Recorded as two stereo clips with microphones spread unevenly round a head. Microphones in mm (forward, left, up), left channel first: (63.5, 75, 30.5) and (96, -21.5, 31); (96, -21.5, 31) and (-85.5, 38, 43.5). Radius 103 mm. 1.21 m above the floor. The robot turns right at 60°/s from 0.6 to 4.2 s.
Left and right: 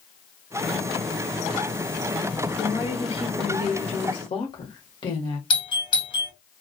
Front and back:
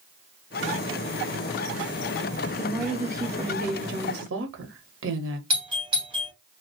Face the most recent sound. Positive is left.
turn(degrees=100)